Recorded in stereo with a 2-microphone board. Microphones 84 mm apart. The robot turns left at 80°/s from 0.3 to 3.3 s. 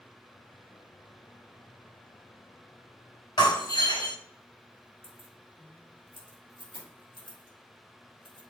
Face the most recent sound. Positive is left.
turn(degrees=75)  # may be behind; listen again after turning